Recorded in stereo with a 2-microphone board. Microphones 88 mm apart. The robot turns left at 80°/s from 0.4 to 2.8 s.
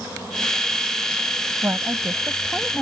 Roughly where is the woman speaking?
Right.